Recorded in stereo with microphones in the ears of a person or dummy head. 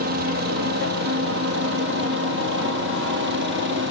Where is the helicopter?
50° right (ahead or behind); by 3.9 s 55° right (ahead or behind).